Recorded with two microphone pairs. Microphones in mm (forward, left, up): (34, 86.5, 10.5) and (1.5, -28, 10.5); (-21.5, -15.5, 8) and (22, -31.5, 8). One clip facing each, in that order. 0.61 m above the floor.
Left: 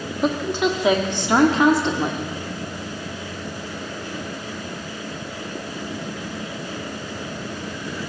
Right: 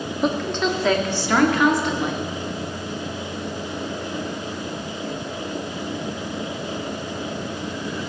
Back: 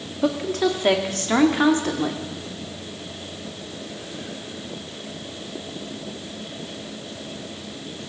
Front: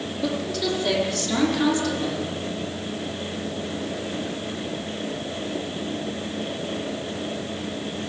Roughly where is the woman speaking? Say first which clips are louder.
Left 1 dB, back 5 dB; behind left.